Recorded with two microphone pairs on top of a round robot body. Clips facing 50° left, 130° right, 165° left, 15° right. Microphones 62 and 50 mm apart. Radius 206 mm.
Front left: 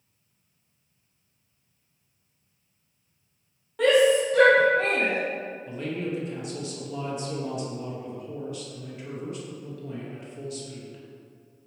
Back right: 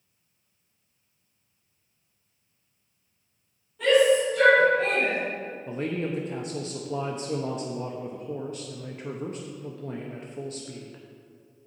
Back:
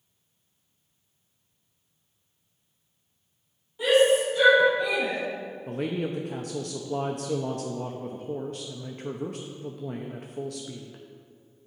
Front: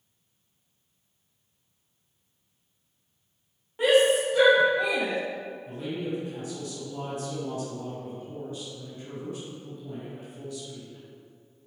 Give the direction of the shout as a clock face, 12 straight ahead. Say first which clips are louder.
Even, even; 11 o'clock.